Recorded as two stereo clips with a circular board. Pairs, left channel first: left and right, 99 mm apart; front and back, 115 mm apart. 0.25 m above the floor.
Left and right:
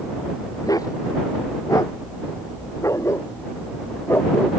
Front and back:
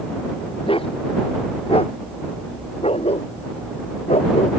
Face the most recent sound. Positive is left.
turn(degrees=20)